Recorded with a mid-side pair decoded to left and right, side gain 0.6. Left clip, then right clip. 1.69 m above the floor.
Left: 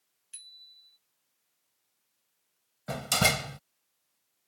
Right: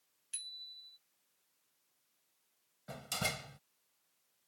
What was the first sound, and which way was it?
A bicycle bell, 25° right.